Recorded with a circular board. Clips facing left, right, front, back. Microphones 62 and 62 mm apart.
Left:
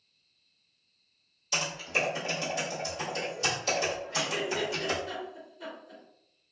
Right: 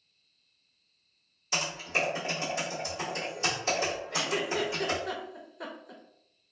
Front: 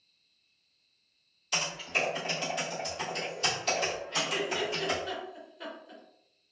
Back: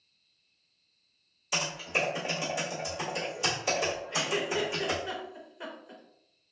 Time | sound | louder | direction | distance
1.5 | typing on a keyboard | even, back 1 dB | 115° right | 1.4 m
4.1 | a giggle | right 1 dB, back 2 dB | 110° right | 0.6 m